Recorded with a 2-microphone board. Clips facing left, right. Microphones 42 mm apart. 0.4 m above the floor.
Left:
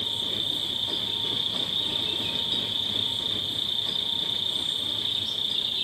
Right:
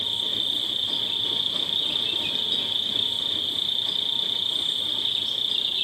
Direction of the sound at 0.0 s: 35° right (ahead or behind).